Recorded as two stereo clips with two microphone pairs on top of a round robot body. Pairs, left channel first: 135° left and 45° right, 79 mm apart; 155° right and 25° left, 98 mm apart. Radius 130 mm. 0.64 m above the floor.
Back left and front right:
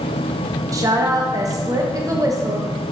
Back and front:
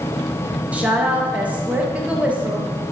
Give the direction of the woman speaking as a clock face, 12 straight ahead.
1 o'clock.